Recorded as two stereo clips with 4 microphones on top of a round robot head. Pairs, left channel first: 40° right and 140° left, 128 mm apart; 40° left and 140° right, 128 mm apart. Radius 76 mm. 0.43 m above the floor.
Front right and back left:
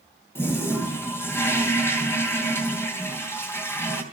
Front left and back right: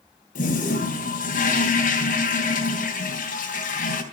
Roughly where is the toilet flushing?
Ahead left.